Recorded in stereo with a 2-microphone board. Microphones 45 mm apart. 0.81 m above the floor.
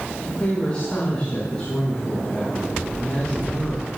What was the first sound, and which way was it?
A woman speaking, 25° left (ahead or behind).